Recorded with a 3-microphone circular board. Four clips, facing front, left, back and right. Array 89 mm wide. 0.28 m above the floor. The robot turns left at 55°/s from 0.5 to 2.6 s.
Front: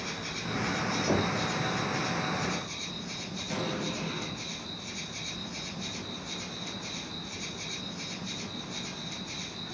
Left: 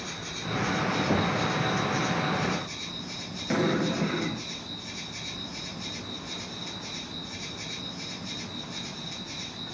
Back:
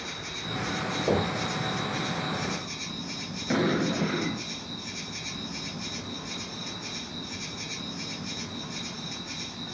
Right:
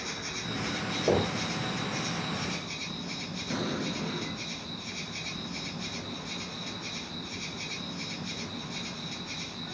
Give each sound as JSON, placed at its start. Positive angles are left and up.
{"t": 0.0, "sound": "an insect", "azimuth_deg": -30, "distance_m": 5.0}
{"t": 1.1, "sound": "knocking", "azimuth_deg": -115, "distance_m": 4.0}
{"t": 3.5, "sound": "an explosion", "azimuth_deg": 140, "distance_m": 1.0}